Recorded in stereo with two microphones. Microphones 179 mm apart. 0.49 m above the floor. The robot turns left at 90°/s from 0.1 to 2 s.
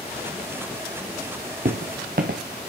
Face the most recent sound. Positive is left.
turn(degrees=-55)  # may be behind; listen again after turning